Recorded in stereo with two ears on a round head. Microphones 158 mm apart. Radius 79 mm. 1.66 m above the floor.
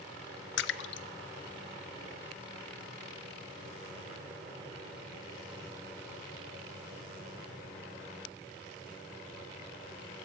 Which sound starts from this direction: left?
A splash, at 0.6 s.